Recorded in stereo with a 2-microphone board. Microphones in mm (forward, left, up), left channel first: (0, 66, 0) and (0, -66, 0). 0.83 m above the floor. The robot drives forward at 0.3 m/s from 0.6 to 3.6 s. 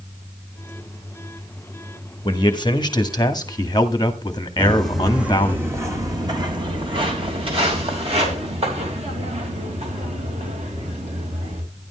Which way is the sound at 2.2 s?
35° left (ahead or behind).